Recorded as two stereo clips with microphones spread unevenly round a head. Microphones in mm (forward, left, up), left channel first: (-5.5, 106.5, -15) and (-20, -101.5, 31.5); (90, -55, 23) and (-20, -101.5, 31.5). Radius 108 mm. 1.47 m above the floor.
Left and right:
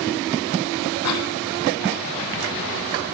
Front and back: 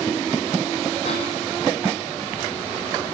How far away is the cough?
About 5 m.